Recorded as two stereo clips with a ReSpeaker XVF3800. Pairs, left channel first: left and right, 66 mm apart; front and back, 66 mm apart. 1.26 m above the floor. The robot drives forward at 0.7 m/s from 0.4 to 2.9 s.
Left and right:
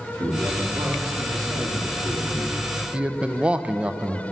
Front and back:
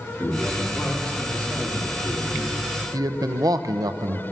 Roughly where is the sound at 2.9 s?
Behind.